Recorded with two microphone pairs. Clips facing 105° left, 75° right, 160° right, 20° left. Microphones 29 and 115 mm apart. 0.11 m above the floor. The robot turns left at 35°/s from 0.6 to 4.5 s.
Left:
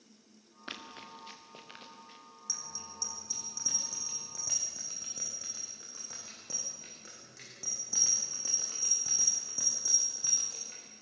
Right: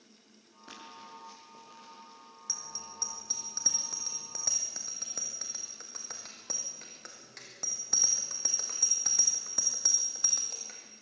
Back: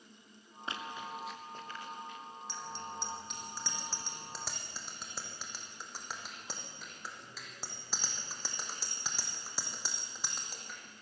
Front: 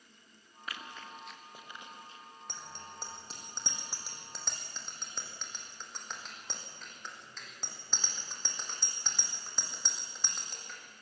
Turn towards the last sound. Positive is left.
turn(degrees=-75)